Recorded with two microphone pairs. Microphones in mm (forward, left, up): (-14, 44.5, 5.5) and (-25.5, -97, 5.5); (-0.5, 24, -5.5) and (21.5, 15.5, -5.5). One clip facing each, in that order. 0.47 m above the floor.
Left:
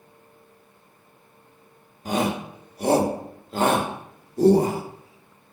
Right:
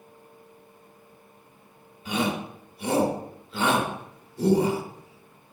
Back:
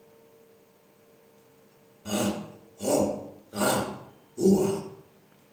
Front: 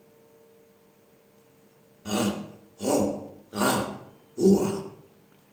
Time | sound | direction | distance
2.0 | a shout | 55° left | 1.8 m